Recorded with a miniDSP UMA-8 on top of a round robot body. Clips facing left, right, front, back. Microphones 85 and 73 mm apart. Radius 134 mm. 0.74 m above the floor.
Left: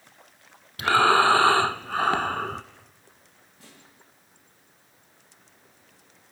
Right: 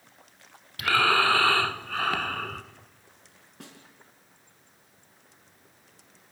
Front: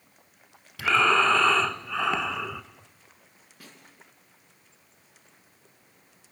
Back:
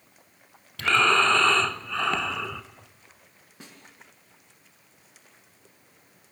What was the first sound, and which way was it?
Breathing, 75° left.